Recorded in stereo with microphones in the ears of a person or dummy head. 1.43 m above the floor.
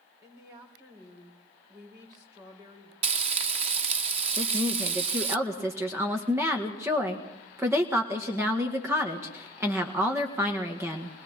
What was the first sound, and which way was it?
A woman speaking, 25° right (ahead or behind).